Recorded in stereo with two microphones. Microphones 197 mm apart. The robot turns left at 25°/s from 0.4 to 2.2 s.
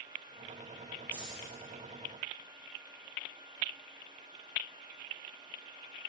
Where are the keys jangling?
10° right (ahead or behind), 5.5 m; by 1.5 s centre (ahead or behind), 5.5 m.